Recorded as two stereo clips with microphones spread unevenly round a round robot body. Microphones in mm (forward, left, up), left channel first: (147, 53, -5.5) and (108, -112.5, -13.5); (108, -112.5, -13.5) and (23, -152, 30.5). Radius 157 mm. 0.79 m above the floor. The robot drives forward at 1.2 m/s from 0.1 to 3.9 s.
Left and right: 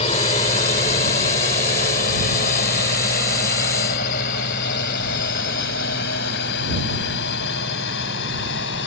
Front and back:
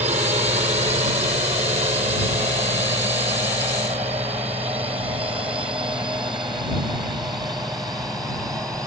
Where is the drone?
145° left; by 8.9 s 120° left.